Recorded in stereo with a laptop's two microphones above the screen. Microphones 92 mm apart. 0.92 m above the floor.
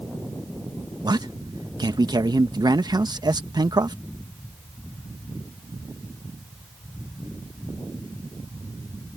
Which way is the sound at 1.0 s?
50° right (ahead or behind).